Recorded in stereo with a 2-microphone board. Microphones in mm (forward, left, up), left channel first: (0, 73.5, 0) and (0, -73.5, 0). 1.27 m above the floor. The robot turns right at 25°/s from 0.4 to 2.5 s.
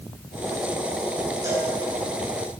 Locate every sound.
1.4 s a cowbell: 20° right (ahead or behind), 8 m; by 1.7 s 30° right (ahead or behind), 8 m